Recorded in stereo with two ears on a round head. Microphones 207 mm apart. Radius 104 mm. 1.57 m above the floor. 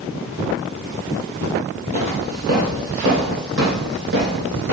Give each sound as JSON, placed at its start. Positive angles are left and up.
{"t": 1.9, "sound": "footsteps", "side_deg": -40, "distance_m": 2.5}